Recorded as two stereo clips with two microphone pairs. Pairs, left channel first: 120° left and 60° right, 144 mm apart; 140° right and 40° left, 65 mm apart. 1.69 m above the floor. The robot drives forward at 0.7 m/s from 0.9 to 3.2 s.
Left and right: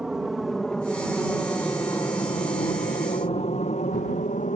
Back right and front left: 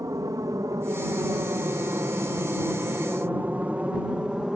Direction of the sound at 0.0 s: 25° left.